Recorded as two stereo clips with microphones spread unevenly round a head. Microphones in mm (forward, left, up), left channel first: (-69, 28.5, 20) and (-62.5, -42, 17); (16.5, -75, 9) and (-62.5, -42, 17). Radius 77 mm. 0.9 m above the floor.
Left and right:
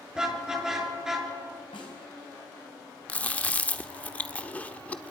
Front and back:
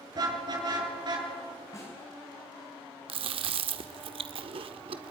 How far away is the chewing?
About 1.0 m.